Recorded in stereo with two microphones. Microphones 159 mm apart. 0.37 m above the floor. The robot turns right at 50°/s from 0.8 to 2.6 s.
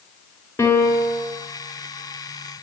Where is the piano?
15° left (ahead or behind), 1.6 m; by 1.2 s 35° left (ahead or behind), 1.6 m.